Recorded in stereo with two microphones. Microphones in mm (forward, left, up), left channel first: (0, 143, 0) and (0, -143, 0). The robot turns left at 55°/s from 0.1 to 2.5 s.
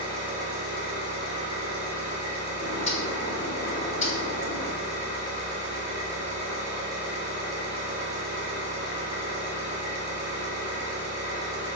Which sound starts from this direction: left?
A bird, at 2.6 s.